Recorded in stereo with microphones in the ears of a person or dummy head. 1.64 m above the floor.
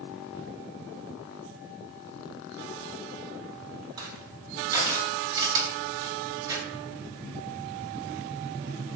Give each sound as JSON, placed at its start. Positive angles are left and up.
{"t": 4.0, "sound": "crushing", "side_deg": -20, "distance_m": 2.5}